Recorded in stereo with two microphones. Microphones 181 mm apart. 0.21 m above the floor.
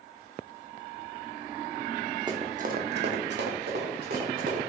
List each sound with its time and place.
2.3 s running footsteps: 25° right (ahead or behind), 0.7 m; by 4.6 s 50° right (ahead or behind), 1.6 m